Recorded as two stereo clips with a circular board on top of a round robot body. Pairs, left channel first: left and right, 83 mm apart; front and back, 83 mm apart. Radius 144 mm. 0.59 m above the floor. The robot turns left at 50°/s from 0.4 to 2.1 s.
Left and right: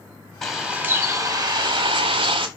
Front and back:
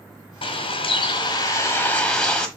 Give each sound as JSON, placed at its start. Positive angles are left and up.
{"t": 0.4, "sound": "a bird", "azimuth_deg": 5, "distance_m": 1.5}